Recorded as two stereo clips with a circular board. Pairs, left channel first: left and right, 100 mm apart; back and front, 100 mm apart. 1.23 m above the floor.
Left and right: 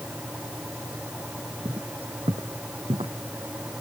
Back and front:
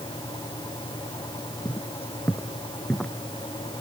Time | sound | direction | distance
1.6 | footsteps | 115° right | ?